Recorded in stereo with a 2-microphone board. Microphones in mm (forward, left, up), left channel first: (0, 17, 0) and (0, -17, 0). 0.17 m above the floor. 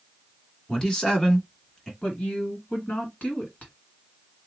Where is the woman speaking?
45° left (ahead or behind), 1.9 m.